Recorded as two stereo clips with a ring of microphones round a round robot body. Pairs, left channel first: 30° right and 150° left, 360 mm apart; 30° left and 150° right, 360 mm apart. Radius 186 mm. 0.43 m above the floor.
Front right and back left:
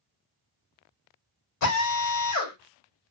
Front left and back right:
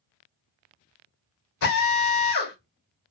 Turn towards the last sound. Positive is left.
turn(degrees=0)